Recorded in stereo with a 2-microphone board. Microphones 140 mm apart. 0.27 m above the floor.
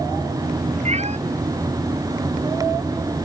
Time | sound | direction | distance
0.8 | a cat meowing | 50° right (ahead or behind) | ?